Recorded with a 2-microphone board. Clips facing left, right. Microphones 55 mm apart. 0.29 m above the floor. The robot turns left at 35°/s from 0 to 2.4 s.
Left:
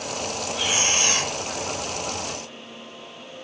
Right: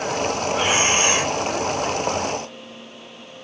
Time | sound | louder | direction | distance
0.5 | breathing | right 5 dB | 35° right (ahead or behind) | 0.9 m